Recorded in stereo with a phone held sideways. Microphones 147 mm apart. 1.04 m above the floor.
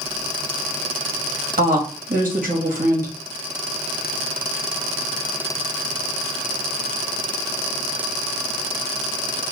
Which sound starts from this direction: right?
A woman speaking, at 1.6 s.